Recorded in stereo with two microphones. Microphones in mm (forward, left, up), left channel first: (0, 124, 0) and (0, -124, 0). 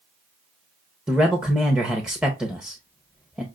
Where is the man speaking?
5° right (ahead or behind), 0.7 m.